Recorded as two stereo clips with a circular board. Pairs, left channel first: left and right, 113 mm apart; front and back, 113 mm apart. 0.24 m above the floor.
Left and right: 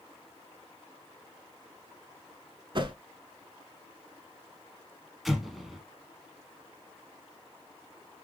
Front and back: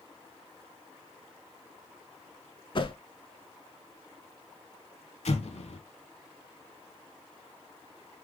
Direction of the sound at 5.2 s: Straight ahead.